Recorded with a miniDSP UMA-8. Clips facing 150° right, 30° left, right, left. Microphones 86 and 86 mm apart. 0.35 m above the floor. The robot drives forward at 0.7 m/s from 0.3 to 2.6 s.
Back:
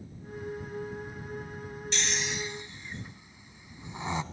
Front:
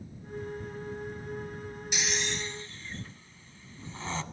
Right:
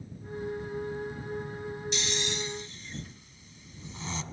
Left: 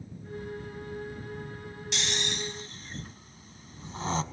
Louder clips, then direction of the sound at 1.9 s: Even, left 3 dB; 110° left.